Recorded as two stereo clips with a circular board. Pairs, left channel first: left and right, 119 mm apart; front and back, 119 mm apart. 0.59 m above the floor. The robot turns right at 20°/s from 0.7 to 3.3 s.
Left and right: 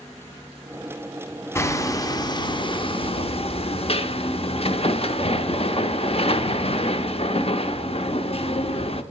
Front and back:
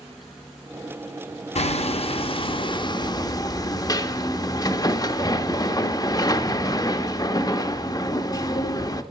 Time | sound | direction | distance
1.6 | hammering | 25° left | 0.6 m